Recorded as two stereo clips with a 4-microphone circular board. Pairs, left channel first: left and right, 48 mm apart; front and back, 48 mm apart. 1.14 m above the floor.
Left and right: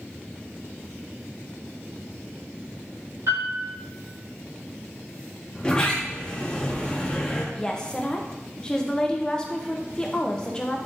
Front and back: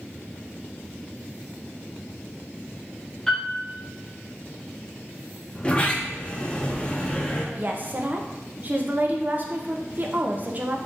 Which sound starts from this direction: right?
A piano, at 3.3 s.